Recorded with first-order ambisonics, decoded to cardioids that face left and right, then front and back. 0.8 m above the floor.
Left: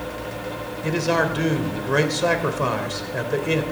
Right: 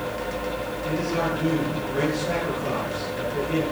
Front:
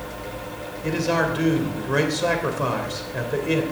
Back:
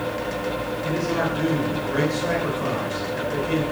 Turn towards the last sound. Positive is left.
turn(degrees=65)